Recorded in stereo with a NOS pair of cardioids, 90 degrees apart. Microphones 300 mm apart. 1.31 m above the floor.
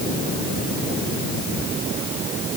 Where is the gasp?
I don't hear a gasp.